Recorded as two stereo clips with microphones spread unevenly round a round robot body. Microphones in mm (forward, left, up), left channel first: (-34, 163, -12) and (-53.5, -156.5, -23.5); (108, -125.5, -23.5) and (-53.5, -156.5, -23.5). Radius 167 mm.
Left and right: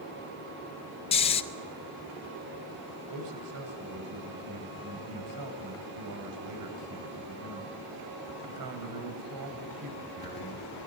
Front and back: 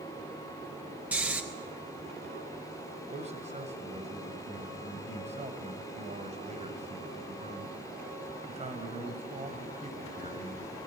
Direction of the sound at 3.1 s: 120° right.